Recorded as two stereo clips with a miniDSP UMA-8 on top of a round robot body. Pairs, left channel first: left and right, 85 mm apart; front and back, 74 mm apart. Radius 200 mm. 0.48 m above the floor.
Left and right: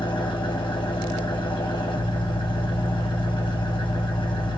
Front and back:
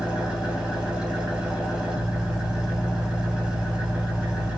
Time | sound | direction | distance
0.0 | an engine running | 105° left | 1.6 m